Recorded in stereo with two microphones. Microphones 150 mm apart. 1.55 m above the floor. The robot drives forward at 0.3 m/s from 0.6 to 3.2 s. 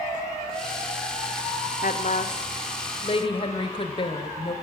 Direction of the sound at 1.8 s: 65° left (ahead or behind).